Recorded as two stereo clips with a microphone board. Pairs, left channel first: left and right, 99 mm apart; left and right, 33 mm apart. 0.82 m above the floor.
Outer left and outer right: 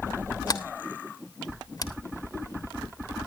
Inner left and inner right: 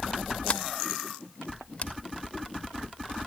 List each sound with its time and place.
0.5 s a sliding door: 45° left (ahead or behind), 1.4 m